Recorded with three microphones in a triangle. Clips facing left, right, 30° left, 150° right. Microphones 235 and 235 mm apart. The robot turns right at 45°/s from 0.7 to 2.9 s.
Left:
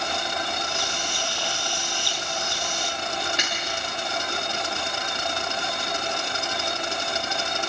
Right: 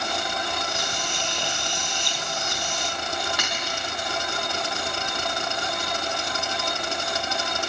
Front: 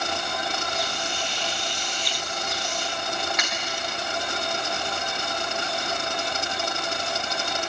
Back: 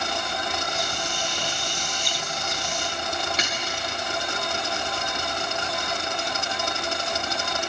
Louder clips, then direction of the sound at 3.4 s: Even, back 1 dB; 155° left.